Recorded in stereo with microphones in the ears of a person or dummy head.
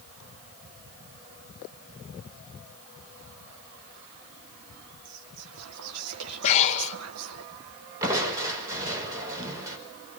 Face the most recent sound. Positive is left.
turn(degrees=-10)  # may be behind; listen again after turning